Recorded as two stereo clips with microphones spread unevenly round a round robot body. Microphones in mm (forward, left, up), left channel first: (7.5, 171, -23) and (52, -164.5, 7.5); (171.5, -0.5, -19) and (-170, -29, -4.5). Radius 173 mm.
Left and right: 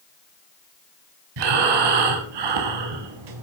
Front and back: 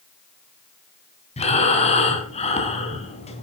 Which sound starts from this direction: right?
Breathing, at 1.4 s.